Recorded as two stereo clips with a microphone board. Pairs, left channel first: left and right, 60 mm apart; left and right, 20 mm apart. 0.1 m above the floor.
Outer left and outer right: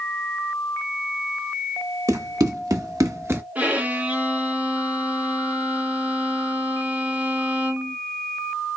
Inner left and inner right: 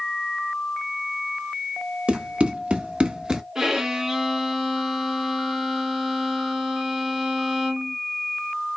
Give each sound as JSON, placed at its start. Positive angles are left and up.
{"t": 2.1, "sound": "running footsteps", "side_deg": -80, "distance_m": 1.9}
{"t": 3.5, "sound": "a violin", "side_deg": -25, "distance_m": 0.8}